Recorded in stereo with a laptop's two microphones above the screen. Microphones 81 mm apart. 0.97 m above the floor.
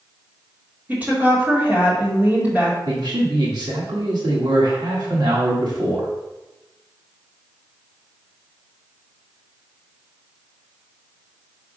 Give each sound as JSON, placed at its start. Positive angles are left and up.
{"t": 0.9, "sound": "a woman speaking", "side_deg": -20, "distance_m": 2.0}
{"t": 2.9, "sound": "a man speaking", "side_deg": -60, "distance_m": 1.3}